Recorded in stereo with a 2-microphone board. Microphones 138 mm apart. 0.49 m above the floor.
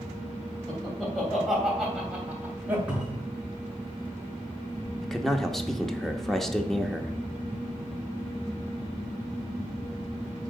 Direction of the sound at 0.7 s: 10° left (ahead or behind).